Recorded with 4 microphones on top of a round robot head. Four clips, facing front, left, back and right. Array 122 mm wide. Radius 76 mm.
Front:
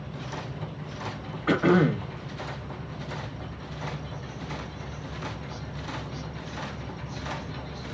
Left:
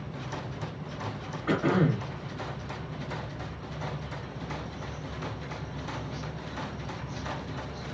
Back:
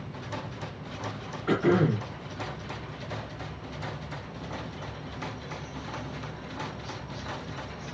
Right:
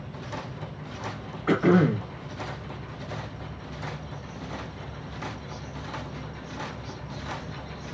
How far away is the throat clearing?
About 1.1 m.